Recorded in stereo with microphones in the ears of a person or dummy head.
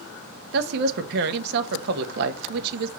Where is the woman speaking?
60° right (ahead or behind), 1.0 m.